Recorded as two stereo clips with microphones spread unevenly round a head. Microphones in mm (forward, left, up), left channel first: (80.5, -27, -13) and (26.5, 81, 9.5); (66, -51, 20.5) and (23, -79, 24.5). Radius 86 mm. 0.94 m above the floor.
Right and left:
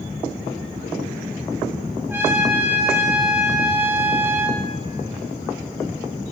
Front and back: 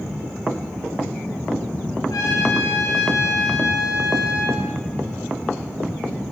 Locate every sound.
2.1 s a trumpet: 40° left, 3 m